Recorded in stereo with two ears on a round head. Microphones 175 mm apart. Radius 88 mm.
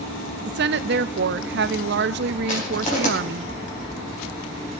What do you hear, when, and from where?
0.5 s a woman speaking: 55° right (ahead or behind), 0.5 m
2.5 s crushing: 35° left (ahead or behind), 4.5 m